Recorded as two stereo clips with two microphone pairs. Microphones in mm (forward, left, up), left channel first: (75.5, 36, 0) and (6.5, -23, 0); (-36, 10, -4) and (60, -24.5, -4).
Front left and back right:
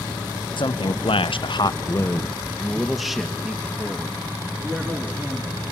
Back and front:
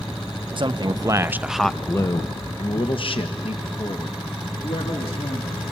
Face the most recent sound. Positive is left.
turn(degrees=145)